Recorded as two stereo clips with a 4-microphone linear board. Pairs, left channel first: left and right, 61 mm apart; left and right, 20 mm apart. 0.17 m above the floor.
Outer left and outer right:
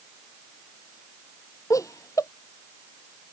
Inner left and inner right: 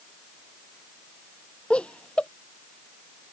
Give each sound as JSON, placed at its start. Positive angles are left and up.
{"t": 1.7, "sound": "laughter", "side_deg": 75}